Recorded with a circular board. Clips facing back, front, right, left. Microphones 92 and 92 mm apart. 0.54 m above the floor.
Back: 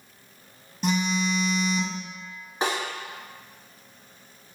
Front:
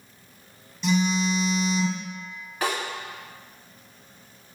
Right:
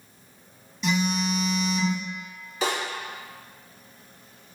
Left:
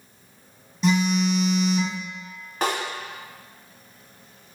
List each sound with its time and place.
0.8 s a phone buzzing: 140° left, 0.7 m
2.6 s a snare drum: 115° left, 0.8 m